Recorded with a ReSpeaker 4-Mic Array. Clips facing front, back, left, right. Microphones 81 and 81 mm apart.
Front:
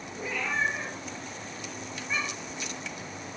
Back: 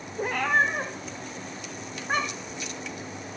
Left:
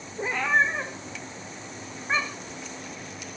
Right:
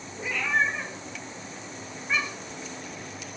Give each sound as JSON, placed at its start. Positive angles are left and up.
{"t": 0.2, "sound": "a cat meowing", "azimuth_deg": 145, "distance_m": 3.0}